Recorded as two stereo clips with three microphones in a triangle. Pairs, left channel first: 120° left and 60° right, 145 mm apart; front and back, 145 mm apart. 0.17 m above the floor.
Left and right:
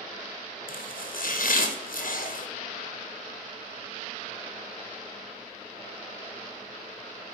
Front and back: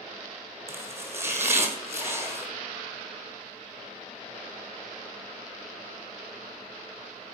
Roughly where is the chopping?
Left.